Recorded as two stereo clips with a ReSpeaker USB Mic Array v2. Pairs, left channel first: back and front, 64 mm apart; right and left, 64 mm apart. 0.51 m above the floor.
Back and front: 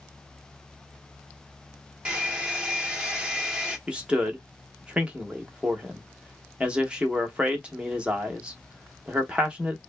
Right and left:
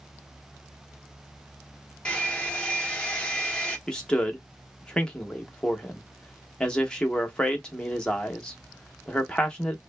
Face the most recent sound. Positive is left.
turn(degrees=-40)